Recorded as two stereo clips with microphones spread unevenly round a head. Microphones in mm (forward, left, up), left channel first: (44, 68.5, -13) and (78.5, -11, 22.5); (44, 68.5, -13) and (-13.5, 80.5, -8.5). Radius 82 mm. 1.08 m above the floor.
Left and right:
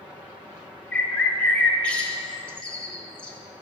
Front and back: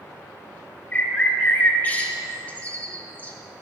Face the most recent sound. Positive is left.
turn(degrees=-15)